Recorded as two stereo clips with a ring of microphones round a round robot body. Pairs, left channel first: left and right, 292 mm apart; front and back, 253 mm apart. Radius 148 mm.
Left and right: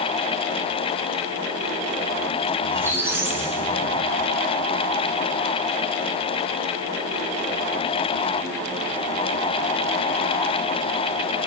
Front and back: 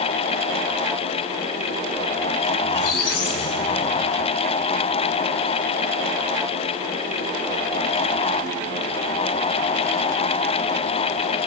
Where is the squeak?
10° right, 3 m.